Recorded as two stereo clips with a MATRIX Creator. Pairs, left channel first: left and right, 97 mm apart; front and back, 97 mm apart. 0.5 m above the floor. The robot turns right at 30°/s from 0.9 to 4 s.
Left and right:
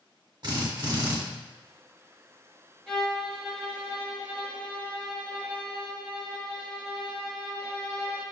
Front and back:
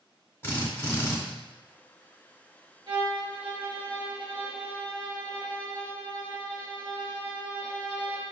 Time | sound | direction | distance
0.4 | a drill | 60° right | 1.0 m
2.9 | a violin | 170° left | 1.4 m